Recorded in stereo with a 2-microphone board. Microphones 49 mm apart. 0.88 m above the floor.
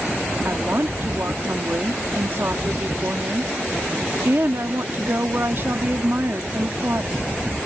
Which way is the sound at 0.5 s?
50° right (ahead or behind).